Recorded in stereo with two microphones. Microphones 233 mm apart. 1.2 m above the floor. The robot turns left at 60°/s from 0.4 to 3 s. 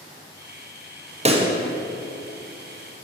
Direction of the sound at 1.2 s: 25° right (ahead or behind).